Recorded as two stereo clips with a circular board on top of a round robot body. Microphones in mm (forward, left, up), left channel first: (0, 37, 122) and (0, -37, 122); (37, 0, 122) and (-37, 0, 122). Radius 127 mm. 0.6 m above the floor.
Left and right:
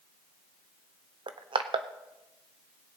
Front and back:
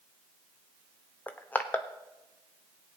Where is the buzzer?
I don't hear a buzzer.